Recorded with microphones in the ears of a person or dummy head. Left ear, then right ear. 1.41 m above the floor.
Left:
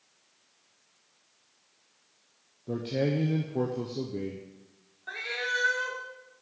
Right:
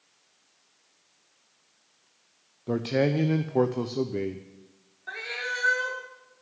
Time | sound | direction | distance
2.7 | a man speaking | 40° right (ahead or behind) | 0.7 m
5.1 | a cat meowing | centre (ahead or behind) | 1.3 m